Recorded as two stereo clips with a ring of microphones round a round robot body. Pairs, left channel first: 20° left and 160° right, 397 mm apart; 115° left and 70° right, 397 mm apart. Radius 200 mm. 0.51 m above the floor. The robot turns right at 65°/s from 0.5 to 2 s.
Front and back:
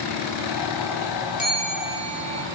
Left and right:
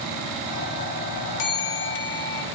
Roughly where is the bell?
Left.